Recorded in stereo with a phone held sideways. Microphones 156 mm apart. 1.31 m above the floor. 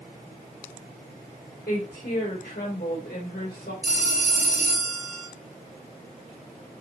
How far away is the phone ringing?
About 4.5 m.